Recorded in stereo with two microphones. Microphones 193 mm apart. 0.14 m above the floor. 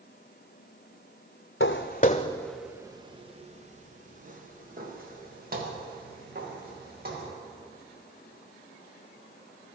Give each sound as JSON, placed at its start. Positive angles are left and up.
{"t": 1.6, "sound": "footsteps", "side_deg": 70, "distance_m": 0.6}